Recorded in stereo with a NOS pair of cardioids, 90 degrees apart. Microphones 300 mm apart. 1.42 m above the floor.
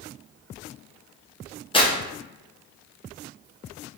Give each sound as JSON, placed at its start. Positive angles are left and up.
{"t": 1.7, "sound": "tearing paper", "azimuth_deg": 15, "distance_m": 0.9}